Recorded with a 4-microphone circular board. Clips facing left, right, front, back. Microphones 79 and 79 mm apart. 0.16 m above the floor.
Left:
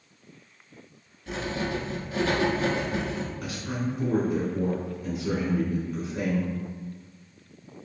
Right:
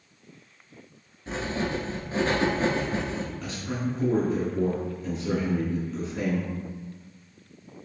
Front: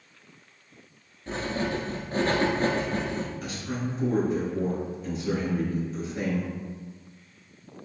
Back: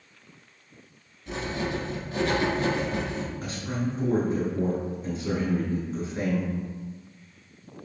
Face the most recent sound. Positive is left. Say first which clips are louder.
# even, back 2 dB
turn(degrees=155)